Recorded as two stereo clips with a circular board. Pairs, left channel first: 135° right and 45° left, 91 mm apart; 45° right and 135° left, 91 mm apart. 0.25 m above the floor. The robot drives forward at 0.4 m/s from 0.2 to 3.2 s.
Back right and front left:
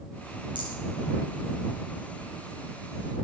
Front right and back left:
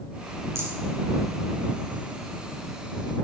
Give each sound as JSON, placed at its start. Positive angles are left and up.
{"t": 0.6, "sound": "a rattle", "azimuth_deg": 75, "distance_m": 4.5}